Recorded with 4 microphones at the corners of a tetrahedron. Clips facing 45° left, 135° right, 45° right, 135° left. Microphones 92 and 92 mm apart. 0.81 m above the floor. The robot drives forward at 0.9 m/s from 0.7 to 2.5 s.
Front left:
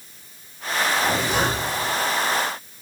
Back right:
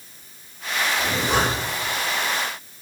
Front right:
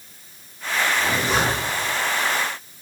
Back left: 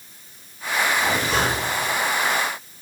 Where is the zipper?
100° right, 4 m; by 1.9 s 110° right, 4 m.